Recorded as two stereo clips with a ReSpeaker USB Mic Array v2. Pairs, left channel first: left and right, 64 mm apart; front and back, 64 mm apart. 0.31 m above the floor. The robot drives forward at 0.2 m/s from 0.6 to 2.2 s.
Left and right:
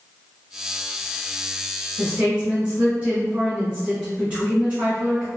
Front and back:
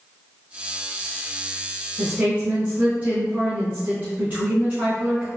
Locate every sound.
2.0 s a woman speaking: 145° right, 1.0 m